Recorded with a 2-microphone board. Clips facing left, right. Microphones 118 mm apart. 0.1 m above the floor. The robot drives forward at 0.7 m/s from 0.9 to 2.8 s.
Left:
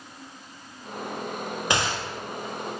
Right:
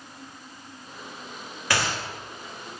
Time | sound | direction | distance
1.7 | a gunshot | 20° left (ahead or behind) | 4.5 m